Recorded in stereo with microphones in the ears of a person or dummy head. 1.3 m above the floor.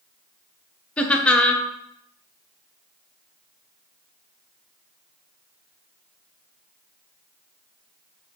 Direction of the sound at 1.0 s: 5° left (ahead or behind).